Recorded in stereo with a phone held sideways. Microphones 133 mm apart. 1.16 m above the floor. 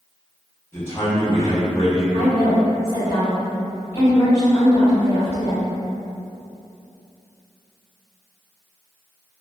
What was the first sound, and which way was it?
A man speaking, 20° left (ahead or behind).